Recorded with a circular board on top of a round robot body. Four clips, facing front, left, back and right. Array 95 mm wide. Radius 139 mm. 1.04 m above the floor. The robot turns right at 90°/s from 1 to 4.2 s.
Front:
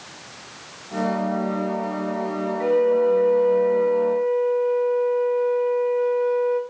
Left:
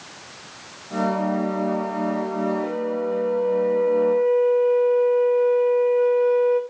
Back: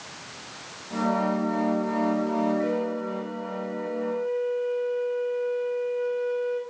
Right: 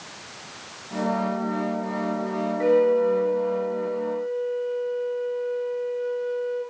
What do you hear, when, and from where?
2.6 s a flute: 70° right, 1.8 m; by 6.6 s 75° left, 1.8 m